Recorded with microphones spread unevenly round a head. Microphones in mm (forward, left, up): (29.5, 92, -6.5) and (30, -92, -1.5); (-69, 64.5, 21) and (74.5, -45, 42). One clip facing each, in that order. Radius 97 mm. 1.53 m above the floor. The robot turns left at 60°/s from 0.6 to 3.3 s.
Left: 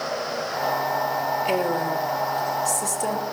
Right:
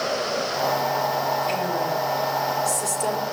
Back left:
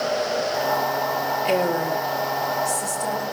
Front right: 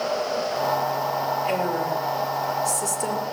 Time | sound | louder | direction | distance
1.4 | a woman speaking | left 2 dB, back left 6 dB | 105° left | 3 m